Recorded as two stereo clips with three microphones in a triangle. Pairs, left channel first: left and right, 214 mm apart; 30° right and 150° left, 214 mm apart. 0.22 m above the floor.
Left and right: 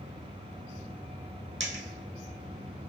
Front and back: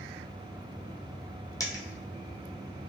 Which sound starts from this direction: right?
A dropped coin, at 1.6 s.